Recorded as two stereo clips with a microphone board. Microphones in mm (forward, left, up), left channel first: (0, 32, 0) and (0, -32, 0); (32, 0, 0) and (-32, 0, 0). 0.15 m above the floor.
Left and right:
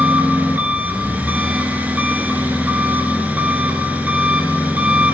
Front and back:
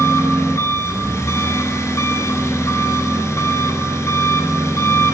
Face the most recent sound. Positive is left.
turn(degrees=-30)